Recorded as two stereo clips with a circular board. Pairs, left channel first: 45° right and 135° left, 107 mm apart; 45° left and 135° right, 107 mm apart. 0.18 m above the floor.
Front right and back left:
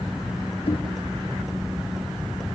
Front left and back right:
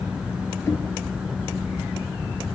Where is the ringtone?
No ringtone in this recording.